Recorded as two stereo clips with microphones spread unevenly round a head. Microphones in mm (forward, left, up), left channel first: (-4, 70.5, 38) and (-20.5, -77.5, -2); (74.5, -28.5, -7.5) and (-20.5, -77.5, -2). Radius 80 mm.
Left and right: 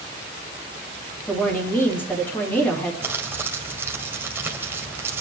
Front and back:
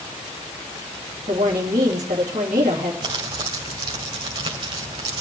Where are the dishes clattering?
I don't hear dishes clattering.